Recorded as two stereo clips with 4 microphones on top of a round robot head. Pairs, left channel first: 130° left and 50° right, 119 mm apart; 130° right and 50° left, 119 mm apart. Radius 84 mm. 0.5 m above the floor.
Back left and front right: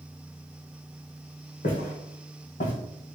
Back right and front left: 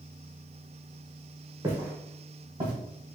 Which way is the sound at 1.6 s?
115° left.